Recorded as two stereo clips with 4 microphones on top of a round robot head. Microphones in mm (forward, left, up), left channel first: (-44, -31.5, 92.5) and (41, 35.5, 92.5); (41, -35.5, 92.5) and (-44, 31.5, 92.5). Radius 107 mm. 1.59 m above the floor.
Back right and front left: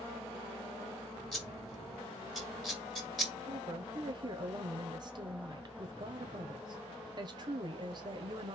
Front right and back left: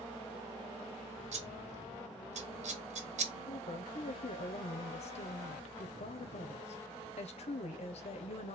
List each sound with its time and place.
1.3 s scissors: 130° left, 1.6 m
3.5 s a woman speaking: 10° right, 1.1 m